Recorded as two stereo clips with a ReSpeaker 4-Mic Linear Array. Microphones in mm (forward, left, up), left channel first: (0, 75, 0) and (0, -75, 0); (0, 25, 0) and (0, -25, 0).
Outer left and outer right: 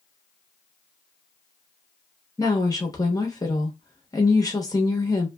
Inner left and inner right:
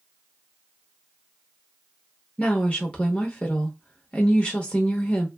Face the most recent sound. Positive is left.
turn(degrees=25)  # may be behind; listen again after turning